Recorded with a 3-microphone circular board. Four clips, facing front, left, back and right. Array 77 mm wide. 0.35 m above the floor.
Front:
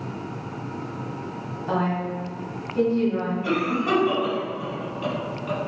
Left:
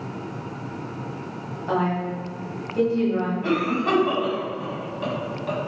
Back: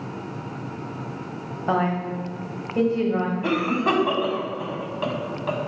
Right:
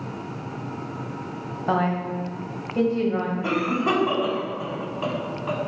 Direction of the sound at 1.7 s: 155° right.